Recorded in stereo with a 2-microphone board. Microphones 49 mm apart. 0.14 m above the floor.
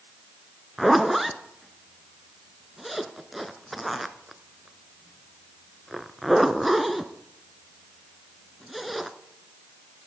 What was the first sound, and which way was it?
A zipper, 5° right (ahead or behind).